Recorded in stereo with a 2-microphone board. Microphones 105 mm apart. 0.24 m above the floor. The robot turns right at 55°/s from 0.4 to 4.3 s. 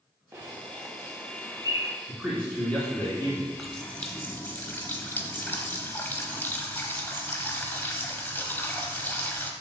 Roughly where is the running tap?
Ahead.